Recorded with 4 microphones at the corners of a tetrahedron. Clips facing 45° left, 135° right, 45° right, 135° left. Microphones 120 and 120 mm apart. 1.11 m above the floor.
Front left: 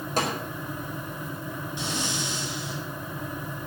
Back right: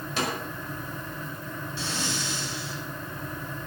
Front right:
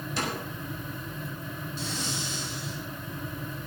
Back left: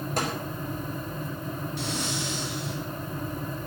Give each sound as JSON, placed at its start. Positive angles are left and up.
{"t": 0.2, "sound": "a snare drum", "azimuth_deg": 95, "distance_m": 5.0}
{"t": 1.8, "sound": "breathing", "azimuth_deg": 115, "distance_m": 3.0}